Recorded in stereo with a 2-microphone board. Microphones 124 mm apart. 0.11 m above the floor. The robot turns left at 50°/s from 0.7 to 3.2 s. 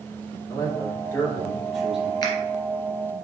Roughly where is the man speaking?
Ahead left.